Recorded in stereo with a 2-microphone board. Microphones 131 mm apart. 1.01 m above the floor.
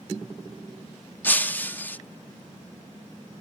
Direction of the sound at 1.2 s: 15° left (ahead or behind).